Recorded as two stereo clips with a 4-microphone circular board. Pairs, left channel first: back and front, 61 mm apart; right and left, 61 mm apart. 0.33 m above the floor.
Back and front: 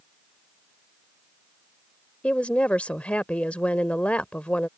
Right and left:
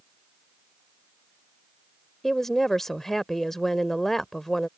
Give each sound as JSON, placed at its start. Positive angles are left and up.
{"t": 2.2, "sound": "a woman speaking", "azimuth_deg": -165}